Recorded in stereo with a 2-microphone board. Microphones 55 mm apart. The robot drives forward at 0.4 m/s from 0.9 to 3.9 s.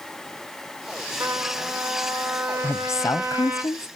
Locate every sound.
1.2 s a trumpet: 55° right (ahead or behind), 2.0 m; by 3.6 s 40° right (ahead or behind), 2.5 m
2.6 s a woman speaking: 55° left (ahead or behind), 0.6 m; by 3.9 s 65° left (ahead or behind), 0.5 m